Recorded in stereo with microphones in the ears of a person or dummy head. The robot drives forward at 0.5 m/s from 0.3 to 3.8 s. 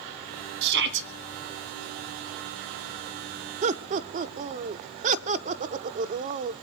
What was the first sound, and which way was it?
A shout, 60° right (ahead or behind).